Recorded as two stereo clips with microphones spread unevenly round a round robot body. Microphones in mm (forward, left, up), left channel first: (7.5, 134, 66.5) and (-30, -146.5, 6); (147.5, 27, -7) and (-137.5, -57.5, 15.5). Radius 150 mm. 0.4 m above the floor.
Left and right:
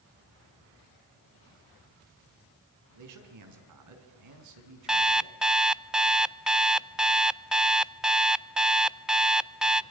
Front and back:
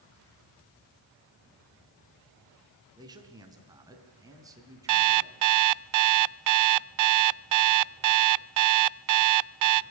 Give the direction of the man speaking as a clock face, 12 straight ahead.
3 o'clock.